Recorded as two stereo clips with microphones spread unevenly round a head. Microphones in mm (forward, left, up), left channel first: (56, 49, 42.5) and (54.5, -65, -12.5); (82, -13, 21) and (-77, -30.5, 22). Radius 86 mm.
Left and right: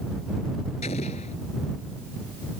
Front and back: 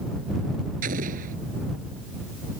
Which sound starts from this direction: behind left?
An explosion, at 0.8 s.